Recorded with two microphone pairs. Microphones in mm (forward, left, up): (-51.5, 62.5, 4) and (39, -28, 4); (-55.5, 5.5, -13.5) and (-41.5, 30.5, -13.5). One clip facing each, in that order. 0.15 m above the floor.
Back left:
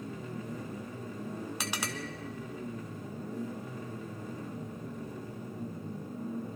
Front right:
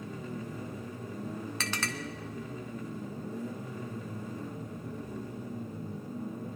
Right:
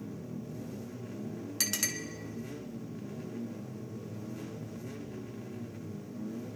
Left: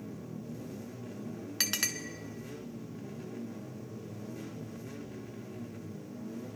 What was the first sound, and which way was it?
A clink, 75° left.